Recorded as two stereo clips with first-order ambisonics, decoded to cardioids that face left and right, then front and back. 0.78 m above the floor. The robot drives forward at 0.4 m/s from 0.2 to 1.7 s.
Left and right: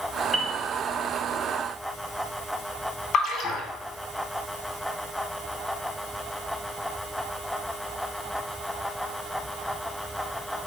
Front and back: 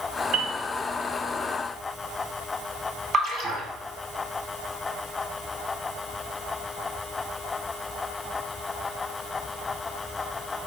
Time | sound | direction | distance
0.3 | a piano | 170° right | 0.9 m
3.1 | a splash | 125° left | 0.9 m